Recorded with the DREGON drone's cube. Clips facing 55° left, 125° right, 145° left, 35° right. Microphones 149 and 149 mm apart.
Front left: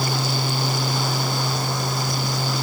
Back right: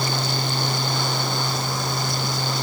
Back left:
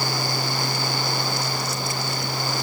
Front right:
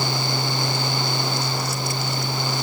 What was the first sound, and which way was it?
Only background noise.